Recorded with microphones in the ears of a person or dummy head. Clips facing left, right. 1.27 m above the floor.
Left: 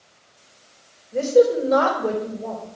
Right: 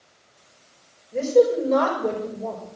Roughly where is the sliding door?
No sliding door in this recording.